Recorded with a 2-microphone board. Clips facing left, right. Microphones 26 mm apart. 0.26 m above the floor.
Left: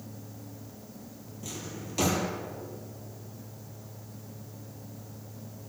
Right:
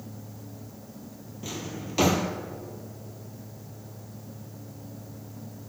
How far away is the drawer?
About 2 m.